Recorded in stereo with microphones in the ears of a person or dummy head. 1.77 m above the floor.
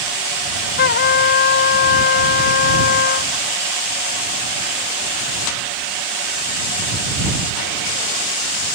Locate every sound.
0.8 s a trumpet: 55° left (ahead or behind)